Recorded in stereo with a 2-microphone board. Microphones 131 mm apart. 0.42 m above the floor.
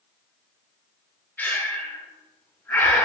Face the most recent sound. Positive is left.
turn(degrees=15)  # may be behind; listen again after turning